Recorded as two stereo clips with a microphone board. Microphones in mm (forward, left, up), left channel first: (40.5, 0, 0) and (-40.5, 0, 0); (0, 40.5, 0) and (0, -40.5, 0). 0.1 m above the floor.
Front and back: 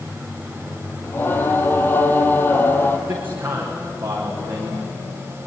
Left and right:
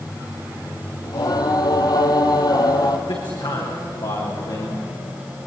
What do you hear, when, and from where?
1.0 s singing: 60° left, 2 m
3.1 s a man speaking: 115° left, 7.5 m